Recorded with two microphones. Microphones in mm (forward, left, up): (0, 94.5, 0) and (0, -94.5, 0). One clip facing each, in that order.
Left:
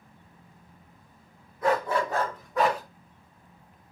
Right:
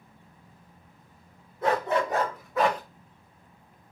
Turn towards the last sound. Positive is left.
turn(degrees=10)  # may be behind; listen again after turning